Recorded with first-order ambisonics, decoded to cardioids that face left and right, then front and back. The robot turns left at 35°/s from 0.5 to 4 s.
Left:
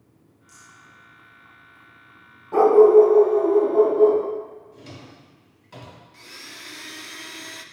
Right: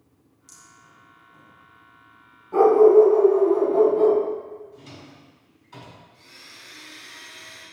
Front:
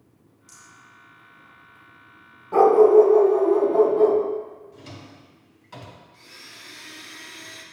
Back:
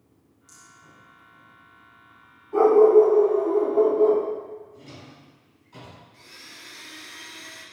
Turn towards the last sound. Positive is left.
turn(degrees=85)